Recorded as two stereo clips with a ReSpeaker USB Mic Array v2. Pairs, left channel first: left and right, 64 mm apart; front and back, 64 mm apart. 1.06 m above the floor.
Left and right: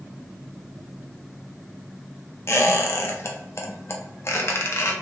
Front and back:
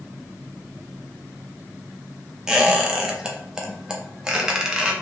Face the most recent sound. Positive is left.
turn(degrees=105)